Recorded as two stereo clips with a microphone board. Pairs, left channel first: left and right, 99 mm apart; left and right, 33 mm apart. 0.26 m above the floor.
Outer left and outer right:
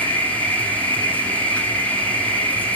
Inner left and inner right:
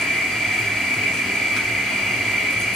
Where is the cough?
No cough in this recording.